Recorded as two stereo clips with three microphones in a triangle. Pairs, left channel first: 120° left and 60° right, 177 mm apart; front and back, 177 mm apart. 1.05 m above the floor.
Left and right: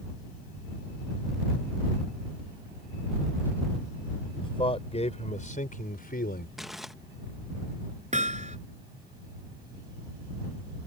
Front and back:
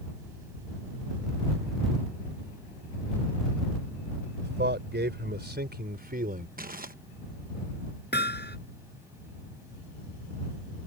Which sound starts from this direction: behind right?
Crumpling, at 6.6 s.